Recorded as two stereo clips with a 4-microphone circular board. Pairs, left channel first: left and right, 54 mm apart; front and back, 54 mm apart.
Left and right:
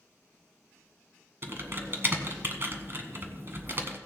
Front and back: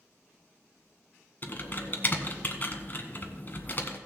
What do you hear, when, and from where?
1.4 s typing on a keyboard: 50° right, 1.2 m